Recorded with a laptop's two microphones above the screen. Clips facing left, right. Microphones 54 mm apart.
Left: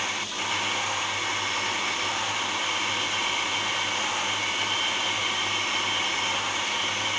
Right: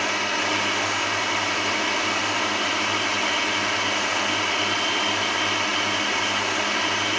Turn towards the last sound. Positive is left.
turn(degrees=-60)  # may be behind; listen again after turning